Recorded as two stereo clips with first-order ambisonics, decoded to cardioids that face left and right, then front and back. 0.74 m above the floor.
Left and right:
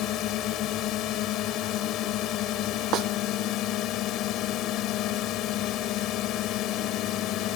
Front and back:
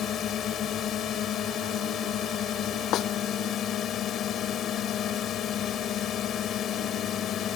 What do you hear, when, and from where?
0.0 s a drone: 50° left
2.9 s a snare drum: 45° right